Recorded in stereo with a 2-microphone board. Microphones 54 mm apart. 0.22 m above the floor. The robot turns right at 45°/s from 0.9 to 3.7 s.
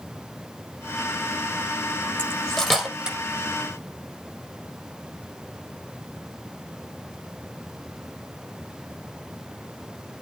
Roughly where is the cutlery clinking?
Left.